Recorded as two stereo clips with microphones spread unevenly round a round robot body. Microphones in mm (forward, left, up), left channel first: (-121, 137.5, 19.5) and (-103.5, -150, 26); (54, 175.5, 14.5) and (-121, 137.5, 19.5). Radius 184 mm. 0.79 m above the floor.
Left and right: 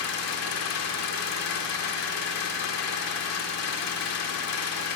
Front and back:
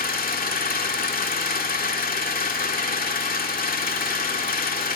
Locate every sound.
0.0 s an engine running: 50° left, 2 m